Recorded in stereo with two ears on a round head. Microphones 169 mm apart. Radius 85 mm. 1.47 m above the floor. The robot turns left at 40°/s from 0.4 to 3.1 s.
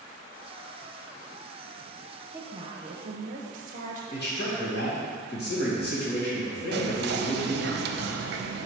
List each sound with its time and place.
2.3 s a woman speaking: 10° right, 0.9 m; by 4.0 s 40° right, 0.9 m
4.1 s a man speaking: 55° left (ahead or behind), 2.5 m
6.7 s whispering: 55° right (ahead or behind), 0.7 m